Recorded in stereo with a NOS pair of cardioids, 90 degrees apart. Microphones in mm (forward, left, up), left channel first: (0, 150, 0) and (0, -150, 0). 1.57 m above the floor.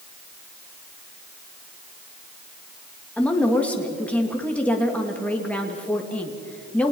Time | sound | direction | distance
3.2 | a woman speaking | 5° left | 2.5 m